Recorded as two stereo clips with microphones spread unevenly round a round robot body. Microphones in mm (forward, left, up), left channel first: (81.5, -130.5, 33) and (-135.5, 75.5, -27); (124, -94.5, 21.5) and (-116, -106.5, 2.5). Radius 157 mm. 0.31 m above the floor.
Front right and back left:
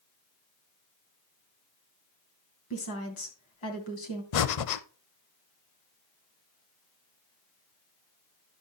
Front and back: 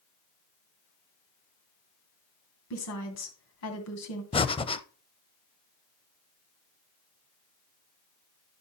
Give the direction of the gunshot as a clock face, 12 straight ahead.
I don't hear a gunshot.